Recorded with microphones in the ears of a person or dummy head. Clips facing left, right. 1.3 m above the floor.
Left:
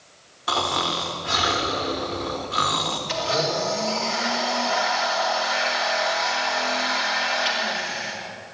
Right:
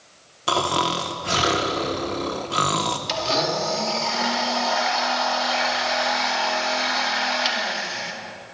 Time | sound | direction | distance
0.5 | snoring | 50° right (ahead or behind) | 1.0 m
3.1 | a blender | 50° right (ahead or behind) | 2 m